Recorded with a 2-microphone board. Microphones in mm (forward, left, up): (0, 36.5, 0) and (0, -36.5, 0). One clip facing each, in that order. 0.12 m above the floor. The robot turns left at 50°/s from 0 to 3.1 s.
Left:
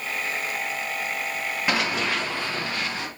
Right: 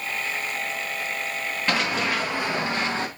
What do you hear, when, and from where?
1.7 s running footsteps: 10° left (ahead or behind), 1.7 m; by 3.1 s 40° right (ahead or behind), 1.9 m